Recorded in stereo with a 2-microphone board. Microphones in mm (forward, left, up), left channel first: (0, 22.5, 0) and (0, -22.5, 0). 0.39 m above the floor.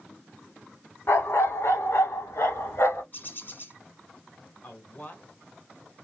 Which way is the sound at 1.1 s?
65° left (ahead or behind).